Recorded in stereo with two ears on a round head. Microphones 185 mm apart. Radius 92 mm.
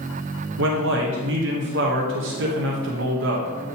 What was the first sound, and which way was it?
A man speaking, 65° right (ahead or behind).